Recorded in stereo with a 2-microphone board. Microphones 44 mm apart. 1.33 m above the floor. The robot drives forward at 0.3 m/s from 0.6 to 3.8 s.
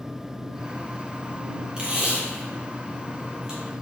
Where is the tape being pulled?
20° right (ahead or behind), 0.8 m.